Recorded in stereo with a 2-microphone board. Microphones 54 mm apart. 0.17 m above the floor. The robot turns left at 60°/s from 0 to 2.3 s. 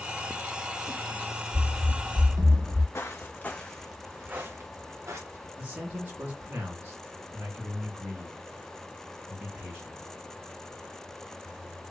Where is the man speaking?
40° right (ahead or behind), 2 m.